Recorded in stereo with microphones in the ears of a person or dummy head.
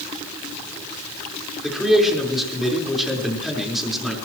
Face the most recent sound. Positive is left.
turn(degrees=0)  # may be behind; listen again after turning